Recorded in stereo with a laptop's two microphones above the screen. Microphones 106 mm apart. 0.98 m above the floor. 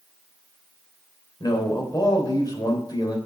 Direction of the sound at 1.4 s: 40° left (ahead or behind).